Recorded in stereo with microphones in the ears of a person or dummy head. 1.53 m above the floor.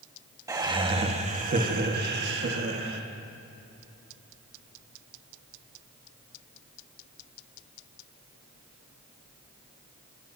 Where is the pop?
I don't hear a pop.